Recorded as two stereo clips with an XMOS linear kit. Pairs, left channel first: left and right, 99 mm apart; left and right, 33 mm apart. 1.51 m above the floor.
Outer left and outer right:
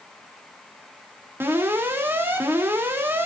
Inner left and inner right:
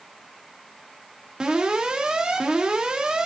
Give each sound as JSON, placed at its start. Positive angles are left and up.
{"t": 1.4, "sound": "an alarm", "side_deg": -20, "distance_m": 3.0}